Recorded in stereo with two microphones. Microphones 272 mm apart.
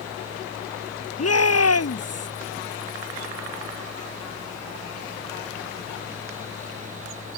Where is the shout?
60° left (ahead or behind).